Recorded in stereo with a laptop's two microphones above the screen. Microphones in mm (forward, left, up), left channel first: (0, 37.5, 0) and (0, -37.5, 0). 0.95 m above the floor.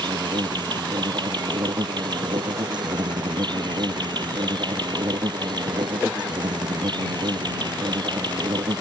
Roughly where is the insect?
Right.